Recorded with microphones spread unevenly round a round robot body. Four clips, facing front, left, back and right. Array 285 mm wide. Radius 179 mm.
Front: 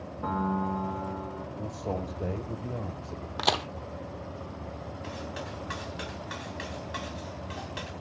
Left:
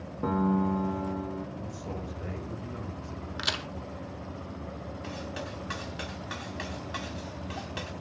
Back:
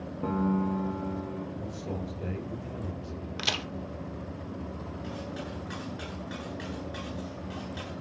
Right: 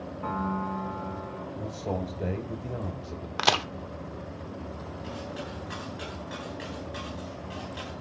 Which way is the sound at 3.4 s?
50° right.